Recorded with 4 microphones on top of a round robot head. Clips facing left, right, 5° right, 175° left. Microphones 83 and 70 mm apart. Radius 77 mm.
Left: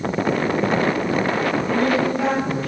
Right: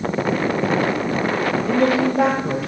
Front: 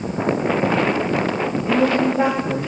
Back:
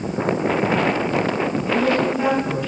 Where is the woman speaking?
65° right, 7 m.